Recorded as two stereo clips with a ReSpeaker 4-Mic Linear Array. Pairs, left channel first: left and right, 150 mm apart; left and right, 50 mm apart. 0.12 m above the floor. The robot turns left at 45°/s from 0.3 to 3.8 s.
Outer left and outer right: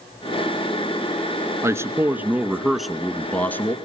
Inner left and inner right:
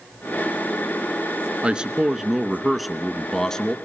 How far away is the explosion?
No explosion in this recording.